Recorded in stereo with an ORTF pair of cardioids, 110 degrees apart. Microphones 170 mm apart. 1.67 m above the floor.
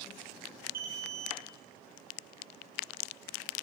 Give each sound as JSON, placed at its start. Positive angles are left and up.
{"t": 0.7, "sound": "an alarm", "azimuth_deg": -60, "distance_m": 1.6}